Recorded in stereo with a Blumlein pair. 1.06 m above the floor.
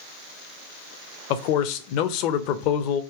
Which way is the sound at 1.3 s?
45° left.